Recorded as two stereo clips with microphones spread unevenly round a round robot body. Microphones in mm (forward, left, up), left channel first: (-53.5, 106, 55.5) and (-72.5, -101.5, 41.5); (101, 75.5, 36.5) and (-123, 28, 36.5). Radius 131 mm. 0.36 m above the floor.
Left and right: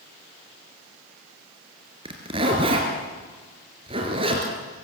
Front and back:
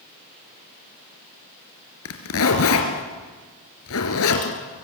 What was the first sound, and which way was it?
A zipper, 25° right.